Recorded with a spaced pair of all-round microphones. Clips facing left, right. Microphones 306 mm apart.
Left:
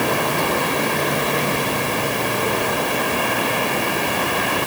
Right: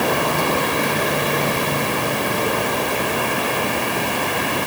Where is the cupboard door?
I don't hear a cupboard door.